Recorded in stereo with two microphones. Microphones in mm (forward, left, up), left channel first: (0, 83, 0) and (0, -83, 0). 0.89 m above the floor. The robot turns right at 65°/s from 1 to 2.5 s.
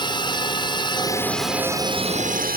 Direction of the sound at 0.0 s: 150° left.